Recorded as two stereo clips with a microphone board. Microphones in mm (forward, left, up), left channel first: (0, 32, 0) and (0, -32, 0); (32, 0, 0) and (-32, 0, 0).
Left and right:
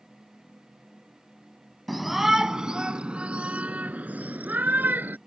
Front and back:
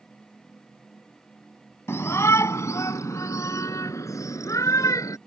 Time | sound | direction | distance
1.9 | a shout | straight ahead | ?